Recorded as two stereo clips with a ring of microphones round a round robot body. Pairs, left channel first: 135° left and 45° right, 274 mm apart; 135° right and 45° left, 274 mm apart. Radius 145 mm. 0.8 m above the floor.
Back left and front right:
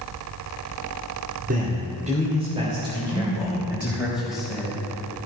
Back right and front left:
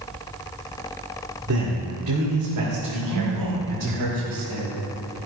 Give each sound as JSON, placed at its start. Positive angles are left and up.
{"t": 1.5, "sound": "a man speaking", "azimuth_deg": 10, "distance_m": 2.5}
{"t": 3.1, "sound": "a man speaking", "azimuth_deg": 45, "distance_m": 4.5}